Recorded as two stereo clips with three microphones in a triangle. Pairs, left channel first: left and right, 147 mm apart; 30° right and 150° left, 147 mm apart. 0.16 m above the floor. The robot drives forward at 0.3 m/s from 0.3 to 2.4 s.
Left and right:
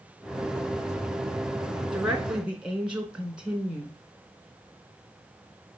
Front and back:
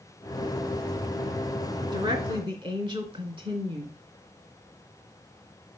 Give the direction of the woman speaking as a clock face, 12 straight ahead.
6 o'clock.